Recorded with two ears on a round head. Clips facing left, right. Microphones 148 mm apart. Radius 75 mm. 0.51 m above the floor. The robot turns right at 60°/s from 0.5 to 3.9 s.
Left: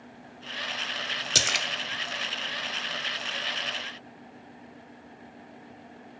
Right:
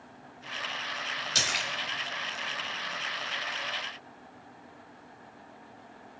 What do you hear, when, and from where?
1.4 s a splash: 65° left (ahead or behind), 1.0 m; by 1.7 s 50° left (ahead or behind), 1.0 m